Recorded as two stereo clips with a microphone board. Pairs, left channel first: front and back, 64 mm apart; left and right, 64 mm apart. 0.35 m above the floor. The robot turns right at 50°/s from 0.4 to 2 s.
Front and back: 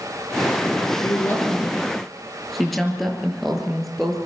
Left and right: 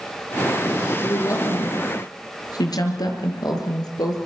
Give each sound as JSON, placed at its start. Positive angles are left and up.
{"t": 1.0, "sound": "a woman speaking", "azimuth_deg": 40, "distance_m": 6.5}